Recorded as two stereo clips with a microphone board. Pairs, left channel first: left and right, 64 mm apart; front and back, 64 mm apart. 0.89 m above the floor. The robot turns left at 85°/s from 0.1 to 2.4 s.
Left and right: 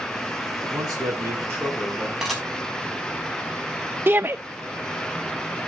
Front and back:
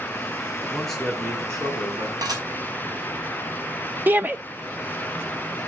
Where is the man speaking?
65° right, 9 m; by 2.1 s 170° left, 9 m.